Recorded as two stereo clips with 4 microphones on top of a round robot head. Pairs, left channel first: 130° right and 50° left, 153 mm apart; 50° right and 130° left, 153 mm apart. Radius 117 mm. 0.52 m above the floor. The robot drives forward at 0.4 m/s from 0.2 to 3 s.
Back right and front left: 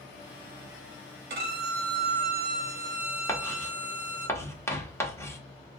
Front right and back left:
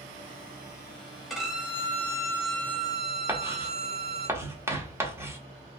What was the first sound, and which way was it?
A violin, 40° left.